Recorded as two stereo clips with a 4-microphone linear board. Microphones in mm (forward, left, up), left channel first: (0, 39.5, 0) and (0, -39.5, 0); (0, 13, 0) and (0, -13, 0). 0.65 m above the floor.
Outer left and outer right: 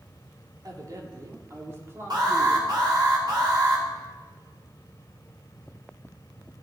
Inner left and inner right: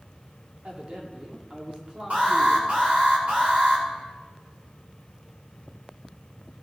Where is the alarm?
60° right (ahead or behind), 3 m.